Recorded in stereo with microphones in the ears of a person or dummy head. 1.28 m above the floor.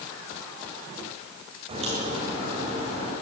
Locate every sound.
1.7 s a crack: 35° right (ahead or behind), 8 m